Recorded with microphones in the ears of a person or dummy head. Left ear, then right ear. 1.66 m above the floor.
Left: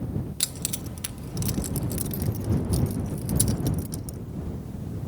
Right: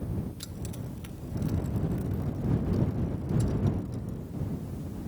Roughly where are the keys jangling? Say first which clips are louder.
Left 10 dB; left.